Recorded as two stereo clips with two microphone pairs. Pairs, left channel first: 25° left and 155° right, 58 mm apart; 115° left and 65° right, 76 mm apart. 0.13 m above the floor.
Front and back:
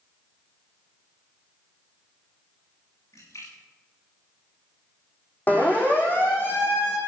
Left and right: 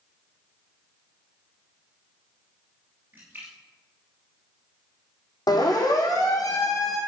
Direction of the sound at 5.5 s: 85° left.